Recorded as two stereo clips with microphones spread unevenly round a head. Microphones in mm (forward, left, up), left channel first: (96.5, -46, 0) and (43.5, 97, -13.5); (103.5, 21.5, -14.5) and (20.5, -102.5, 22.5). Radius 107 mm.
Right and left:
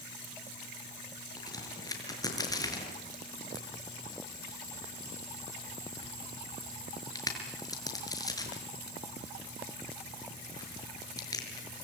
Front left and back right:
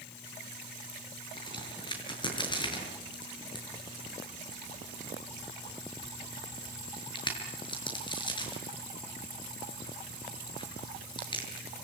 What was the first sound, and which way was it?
A crack, 5° right.